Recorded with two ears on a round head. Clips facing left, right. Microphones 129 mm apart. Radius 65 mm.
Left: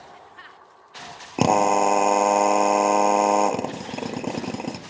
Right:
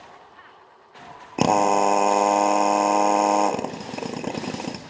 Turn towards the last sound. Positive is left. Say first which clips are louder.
# even
turn(degrees=0)  # may be behind; listen again after turning